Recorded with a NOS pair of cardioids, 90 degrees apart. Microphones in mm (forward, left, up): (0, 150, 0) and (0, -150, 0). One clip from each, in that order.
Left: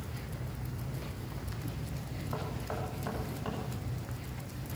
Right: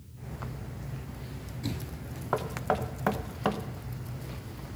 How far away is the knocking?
About 0.9 m.